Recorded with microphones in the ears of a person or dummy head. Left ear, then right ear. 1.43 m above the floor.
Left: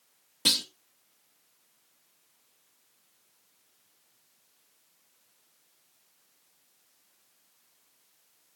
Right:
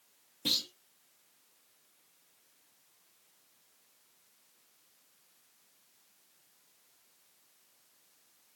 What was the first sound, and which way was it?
A clunk, 45° left (ahead or behind).